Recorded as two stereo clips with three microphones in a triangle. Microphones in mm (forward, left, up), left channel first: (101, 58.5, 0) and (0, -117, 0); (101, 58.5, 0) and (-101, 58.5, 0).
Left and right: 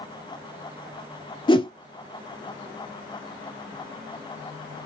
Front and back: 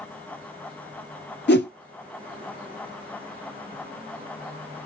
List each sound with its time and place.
1.5 s a whoosh: 5° right, 0.5 m